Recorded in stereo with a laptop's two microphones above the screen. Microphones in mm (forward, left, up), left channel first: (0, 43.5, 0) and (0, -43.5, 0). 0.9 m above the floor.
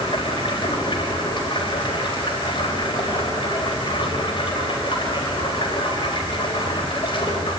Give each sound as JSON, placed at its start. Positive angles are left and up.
{"t": 0.0, "sound": "running water", "side_deg": 65, "distance_m": 4.5}